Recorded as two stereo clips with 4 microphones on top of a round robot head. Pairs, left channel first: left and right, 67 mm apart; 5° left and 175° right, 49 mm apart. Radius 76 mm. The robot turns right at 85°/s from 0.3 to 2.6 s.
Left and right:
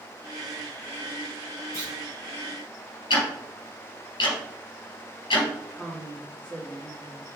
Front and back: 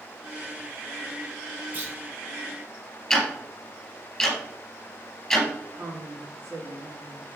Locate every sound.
1.7 s a clunk: 130° left, 4 m; by 1.9 s 150° left, 4 m
3.1 s ticking: 95° left, 3.5 m
5.7 s a woman speaking: 170° left, 2.5 m